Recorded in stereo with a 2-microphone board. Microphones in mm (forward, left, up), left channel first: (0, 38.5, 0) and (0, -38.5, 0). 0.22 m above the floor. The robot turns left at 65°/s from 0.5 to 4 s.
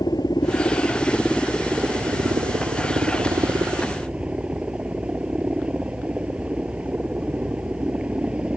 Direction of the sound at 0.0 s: 60° left.